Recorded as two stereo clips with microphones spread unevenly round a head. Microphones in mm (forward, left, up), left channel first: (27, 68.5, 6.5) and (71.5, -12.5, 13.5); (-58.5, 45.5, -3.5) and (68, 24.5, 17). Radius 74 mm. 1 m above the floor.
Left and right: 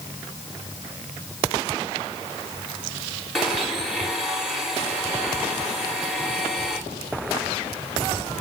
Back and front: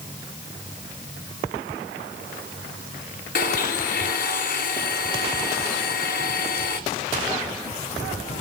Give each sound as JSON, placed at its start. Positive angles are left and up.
{"t": 3.4, "sound": "a blender", "azimuth_deg": -150, "distance_m": 1.9}